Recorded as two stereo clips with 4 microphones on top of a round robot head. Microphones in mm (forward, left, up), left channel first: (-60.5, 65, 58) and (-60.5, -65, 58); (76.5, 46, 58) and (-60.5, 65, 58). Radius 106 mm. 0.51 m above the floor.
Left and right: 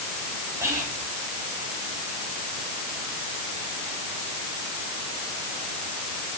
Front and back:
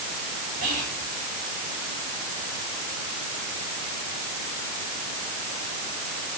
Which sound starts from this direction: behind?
Whispering, at 0.6 s.